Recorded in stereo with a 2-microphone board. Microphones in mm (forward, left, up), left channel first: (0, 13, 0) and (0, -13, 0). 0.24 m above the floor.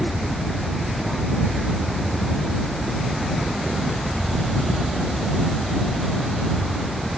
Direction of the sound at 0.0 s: 10° left (ahead or behind).